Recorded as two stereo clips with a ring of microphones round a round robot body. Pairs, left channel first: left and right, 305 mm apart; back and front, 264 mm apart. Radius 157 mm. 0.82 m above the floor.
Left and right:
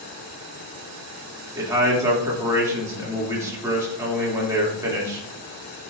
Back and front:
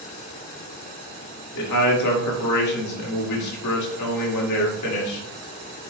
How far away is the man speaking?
About 2.0 m.